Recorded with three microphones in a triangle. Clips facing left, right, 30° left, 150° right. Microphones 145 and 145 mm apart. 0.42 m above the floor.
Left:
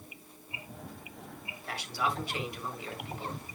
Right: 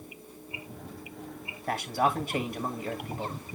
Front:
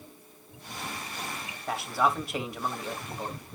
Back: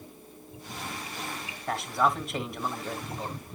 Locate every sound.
1.7 s a man speaking: 60° right, 1.7 m